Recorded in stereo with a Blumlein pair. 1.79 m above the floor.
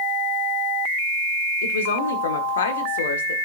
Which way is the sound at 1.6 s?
60° left.